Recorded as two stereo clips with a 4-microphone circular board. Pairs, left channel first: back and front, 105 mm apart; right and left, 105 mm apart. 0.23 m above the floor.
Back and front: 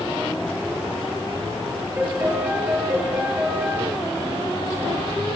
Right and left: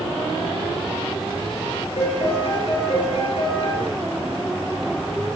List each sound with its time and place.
2.0 s a piano: 75° right, 5.5 m